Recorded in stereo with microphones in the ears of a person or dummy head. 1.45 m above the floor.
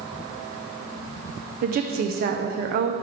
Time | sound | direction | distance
1.6 | a woman speaking | 45° right (ahead or behind) | 0.6 m